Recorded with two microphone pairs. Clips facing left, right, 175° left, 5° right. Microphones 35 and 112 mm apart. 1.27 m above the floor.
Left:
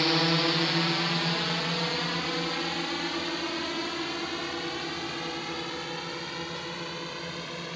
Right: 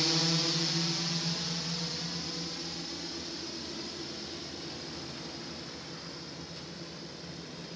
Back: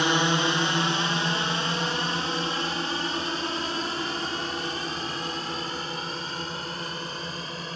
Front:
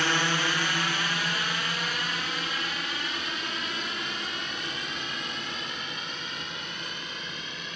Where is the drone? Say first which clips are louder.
Left 6 dB, back 4 dB; 115° left; by 7.8 s 120° left.